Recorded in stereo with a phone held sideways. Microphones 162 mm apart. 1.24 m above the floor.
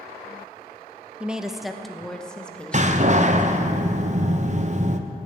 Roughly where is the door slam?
Right.